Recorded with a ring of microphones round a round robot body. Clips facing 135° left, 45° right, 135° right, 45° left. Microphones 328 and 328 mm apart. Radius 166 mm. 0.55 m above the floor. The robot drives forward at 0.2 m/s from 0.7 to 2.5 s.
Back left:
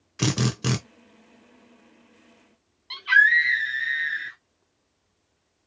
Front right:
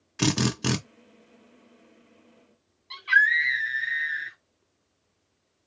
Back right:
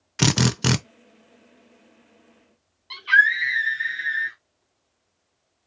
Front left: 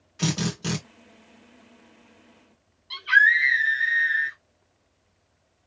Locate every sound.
0.2 s a drill: 130° right, 0.8 m
2.9 s a scream: 165° left, 1.5 m